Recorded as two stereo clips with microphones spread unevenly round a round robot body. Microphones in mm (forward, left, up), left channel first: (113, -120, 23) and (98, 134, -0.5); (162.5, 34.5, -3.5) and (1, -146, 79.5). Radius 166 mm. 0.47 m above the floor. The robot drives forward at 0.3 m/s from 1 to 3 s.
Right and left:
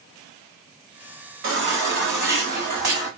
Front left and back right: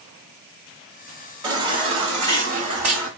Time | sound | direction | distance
1.4 | a baby crying | 145° left | 0.7 m